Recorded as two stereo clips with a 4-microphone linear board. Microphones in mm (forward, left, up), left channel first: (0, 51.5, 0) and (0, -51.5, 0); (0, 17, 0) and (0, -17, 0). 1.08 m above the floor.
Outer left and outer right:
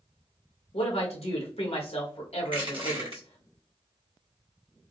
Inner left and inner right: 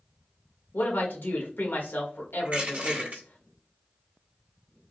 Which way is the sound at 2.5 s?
55° right (ahead or behind).